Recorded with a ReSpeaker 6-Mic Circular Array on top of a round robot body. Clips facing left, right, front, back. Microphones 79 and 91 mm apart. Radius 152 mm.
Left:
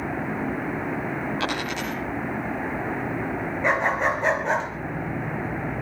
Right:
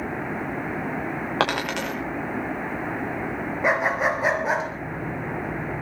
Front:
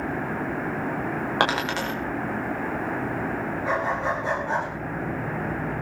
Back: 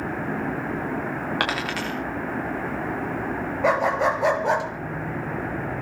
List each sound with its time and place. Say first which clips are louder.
1.4 s a dropped coin: right 3 dB, front 5 dB; 65° right, 8 m
3.6 s a dog barking: right 1 dB, back 6 dB; 175° right, 3.5 m